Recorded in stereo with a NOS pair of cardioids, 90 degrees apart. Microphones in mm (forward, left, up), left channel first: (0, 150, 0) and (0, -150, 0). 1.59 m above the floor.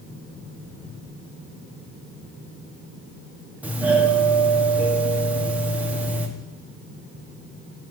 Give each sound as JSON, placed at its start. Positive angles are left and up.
{"t": 3.6, "sound": "a doorbell", "azimuth_deg": -5, "distance_m": 1.7}